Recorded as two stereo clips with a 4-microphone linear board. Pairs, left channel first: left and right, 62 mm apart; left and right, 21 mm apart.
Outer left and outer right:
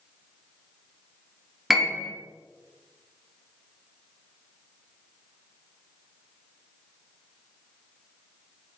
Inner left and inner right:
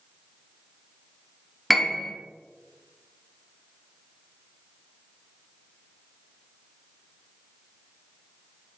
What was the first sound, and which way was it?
A piano, 5° right (ahead or behind).